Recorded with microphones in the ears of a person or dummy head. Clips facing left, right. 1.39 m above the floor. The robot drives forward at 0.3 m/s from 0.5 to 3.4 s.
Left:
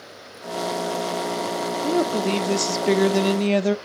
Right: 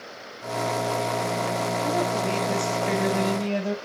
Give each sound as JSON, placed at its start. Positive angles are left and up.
{"t": 1.8, "sound": "a woman speaking", "side_deg": 35, "distance_m": 0.9}